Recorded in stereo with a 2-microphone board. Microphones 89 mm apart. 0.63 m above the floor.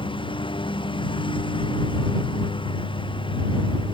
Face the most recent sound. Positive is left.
turn(degrees=75)  # may be behind; listen again after turning